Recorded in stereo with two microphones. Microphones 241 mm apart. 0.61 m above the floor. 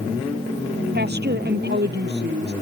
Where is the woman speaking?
45° right (ahead or behind).